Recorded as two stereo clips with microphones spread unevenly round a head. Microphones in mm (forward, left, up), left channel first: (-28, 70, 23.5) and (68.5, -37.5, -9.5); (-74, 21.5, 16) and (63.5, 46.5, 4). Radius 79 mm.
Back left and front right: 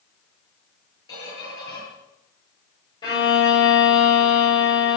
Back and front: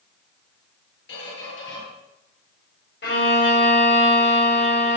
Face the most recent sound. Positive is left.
turn(degrees=-165)